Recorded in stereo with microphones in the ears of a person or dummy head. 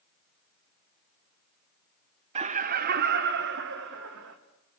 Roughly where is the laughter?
Right.